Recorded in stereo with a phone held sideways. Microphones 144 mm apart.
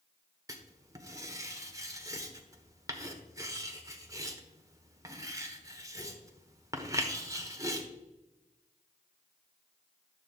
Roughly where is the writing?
Right.